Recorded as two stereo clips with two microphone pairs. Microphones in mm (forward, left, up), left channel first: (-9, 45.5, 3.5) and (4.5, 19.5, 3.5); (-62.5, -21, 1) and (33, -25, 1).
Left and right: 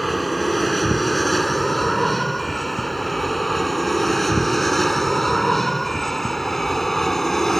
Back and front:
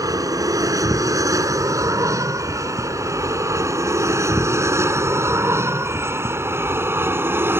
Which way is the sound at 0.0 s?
30° left.